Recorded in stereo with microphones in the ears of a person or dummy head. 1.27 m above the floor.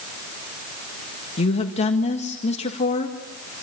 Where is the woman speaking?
35° left (ahead or behind), 1.8 m.